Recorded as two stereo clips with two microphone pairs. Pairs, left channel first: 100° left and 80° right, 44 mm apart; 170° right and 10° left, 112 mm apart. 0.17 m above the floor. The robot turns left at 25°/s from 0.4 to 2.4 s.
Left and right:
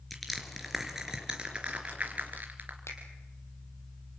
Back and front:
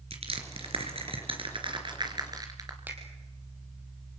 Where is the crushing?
10° left, 3.5 m; by 2.8 s 40° right, 3.5 m.